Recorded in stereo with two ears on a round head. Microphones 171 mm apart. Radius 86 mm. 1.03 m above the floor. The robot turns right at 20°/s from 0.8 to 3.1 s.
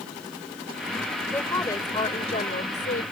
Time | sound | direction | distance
1.3 | a woman speaking | 10° left | ?